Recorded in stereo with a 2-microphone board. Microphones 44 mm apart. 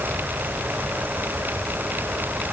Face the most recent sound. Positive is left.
No sound to turn to.